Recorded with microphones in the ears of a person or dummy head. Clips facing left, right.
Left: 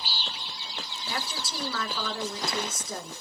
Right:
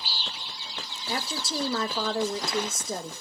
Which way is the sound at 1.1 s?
25° right (ahead or behind).